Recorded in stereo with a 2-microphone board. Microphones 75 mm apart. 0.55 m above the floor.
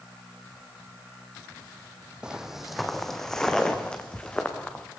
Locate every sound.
2.2 s footsteps: 10° right (ahead or behind), 1.1 m; by 4.8 s 15° left (ahead or behind), 2.5 m